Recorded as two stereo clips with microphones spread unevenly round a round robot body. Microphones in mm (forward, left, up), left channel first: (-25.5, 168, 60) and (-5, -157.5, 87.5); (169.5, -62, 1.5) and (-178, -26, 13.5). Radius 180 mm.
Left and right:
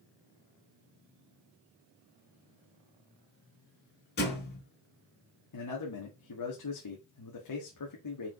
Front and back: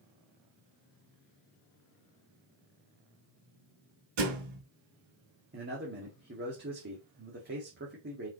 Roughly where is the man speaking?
Left.